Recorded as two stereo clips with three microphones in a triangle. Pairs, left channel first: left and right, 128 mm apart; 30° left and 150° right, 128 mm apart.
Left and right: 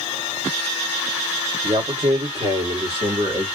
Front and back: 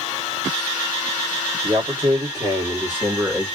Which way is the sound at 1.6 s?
110° right.